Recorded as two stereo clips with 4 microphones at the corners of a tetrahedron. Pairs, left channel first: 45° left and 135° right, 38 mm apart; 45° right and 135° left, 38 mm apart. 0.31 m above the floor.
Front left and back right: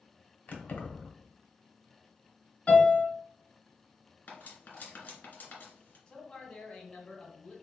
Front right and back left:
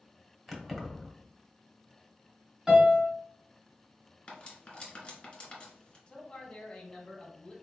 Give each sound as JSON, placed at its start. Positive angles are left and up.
{"t": 0.5, "sound": "keys jangling", "azimuth_deg": 45, "distance_m": 0.8}
{"t": 2.7, "sound": "a piano", "azimuth_deg": 75, "distance_m": 1.5}
{"t": 4.3, "sound": "cutlery clinking", "azimuth_deg": 15, "distance_m": 1.4}
{"t": 6.1, "sound": "a man speaking", "azimuth_deg": 0, "distance_m": 1.1}